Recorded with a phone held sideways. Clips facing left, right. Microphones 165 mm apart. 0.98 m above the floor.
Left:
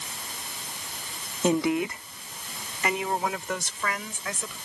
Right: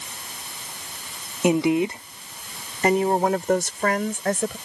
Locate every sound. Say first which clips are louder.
1.4 s a woman speaking: right 4 dB; 15° right (ahead or behind); by 4.6 s 55° right (ahead or behind)